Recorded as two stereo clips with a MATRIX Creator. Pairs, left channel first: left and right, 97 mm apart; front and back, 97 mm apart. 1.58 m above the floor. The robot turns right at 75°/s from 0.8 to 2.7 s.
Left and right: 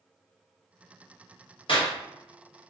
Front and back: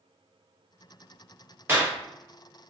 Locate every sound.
1.7 s a clap: 110° left, 0.8 m; by 2.0 s 130° left, 0.8 m